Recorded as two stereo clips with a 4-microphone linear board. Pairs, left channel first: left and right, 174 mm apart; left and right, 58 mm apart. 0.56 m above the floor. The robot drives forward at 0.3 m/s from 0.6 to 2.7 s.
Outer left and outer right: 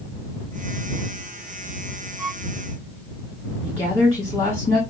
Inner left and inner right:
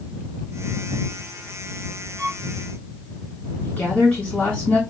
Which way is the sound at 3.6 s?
20° left (ahead or behind).